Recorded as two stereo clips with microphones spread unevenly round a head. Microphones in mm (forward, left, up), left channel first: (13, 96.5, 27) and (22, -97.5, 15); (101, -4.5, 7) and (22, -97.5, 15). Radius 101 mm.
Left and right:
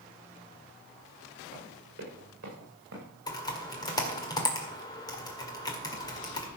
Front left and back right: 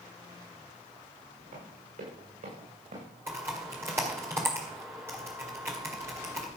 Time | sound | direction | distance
1.5 | running footsteps | 135° right | 8 m
3.3 | typing on a keyboard | 160° left | 1.9 m